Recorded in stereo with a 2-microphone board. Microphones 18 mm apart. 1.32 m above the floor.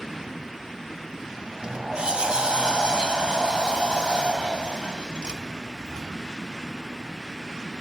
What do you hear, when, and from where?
1.4 s a sliding door: 60° right (ahead or behind), 2 m